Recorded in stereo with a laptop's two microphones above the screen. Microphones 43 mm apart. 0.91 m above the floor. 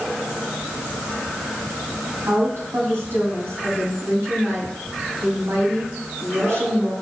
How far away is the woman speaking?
About 5.5 m.